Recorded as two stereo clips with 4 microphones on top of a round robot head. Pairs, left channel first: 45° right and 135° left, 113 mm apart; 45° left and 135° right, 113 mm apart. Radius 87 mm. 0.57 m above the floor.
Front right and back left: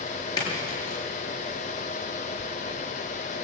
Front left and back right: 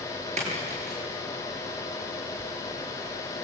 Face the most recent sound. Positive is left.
turn(degrees=-100)